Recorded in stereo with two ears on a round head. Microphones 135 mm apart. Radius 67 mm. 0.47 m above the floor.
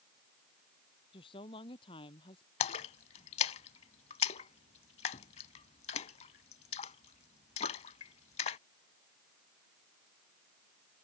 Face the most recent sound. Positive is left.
turn(degrees=40)  # may be behind; listen again after turning